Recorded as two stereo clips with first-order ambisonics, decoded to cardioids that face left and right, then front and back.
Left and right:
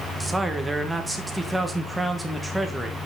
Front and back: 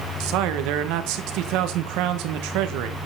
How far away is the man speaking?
About 1.3 m.